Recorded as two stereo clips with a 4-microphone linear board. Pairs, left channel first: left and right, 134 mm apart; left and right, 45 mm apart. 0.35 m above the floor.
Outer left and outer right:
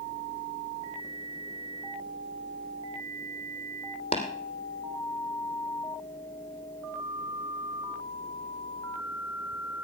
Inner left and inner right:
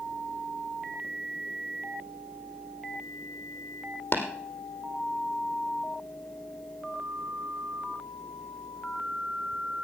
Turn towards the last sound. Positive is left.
turn(degrees=50)  # may be behind; listen again after turning